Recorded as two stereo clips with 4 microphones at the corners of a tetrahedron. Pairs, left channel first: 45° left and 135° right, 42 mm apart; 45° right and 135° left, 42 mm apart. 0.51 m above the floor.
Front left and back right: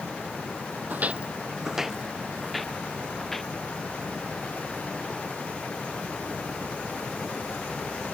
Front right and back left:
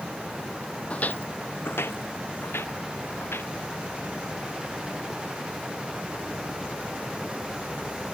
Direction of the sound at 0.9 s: 100° right.